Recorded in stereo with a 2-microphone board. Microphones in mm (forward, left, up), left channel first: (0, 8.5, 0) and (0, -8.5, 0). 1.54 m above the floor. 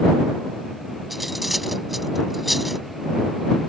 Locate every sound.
1.1 s cutlery clinking: centre (ahead or behind)